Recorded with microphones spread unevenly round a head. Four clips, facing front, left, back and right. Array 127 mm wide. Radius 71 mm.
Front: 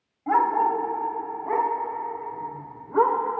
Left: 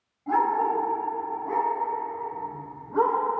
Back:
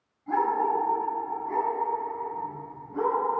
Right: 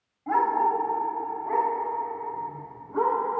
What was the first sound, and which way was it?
A dog barking, 10° right.